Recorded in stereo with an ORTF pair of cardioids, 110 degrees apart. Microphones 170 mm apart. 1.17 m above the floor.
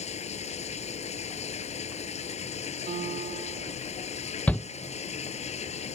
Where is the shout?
10° left.